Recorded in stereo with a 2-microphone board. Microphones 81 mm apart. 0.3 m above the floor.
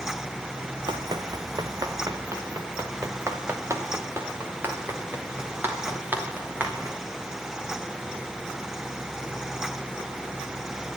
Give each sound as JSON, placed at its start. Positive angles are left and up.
{"t": 0.9, "sound": "running footsteps", "side_deg": -60, "distance_m": 1.4}